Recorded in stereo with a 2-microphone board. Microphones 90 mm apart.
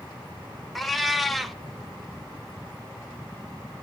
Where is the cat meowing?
Centre (ahead or behind), 0.7 m.